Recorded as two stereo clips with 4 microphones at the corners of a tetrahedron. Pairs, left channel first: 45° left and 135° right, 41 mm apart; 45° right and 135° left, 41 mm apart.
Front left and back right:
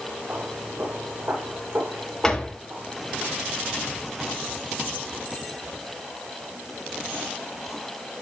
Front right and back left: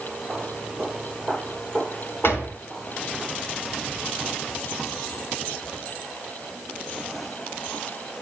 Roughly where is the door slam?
Ahead right.